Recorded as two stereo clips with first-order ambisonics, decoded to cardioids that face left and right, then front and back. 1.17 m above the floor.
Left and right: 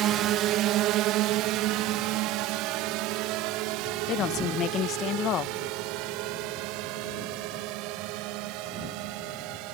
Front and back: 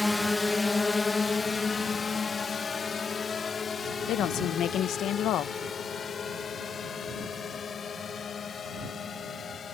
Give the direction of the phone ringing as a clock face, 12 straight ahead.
No phone ringing in this recording.